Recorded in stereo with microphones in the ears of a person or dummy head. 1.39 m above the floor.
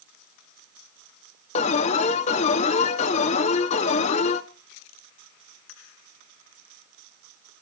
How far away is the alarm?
About 1.2 m.